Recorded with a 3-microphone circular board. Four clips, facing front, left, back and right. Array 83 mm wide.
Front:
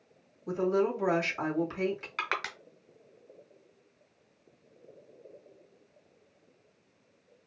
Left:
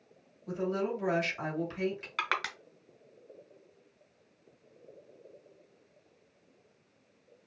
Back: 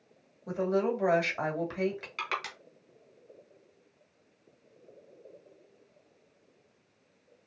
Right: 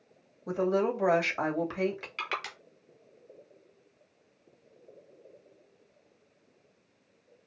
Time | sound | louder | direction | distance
0.5 | a woman speaking | right 5 dB, front 1 dB | 115° right | 2.0 m
2.2 | crushing | left 5 dB, back 1 dB | 60° left | 1.5 m